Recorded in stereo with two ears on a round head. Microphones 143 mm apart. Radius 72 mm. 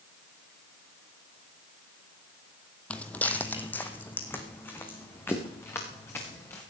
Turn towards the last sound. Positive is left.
turn(degrees=15)  # may be behind; listen again after turning